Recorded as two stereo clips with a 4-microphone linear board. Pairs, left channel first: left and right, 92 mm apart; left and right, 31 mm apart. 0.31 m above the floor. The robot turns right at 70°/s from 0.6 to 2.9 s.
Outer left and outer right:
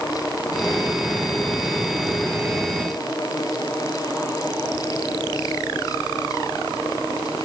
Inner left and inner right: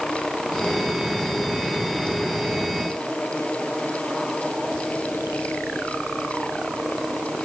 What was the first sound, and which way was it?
Only background noise.